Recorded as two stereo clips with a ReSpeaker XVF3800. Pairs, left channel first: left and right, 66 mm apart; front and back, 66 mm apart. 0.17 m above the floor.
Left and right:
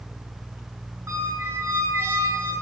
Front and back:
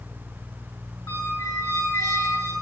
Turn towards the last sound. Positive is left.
turn(degrees=-35)